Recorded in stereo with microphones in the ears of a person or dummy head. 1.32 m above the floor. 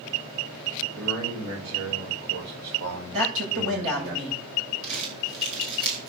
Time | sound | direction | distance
0.9 | a man speaking | 70° right (ahead or behind) | 6 m
3.1 | a man speaking | 75° right (ahead or behind) | 9 m
4.8 | crumpling | 75° right (ahead or behind) | 7.5 m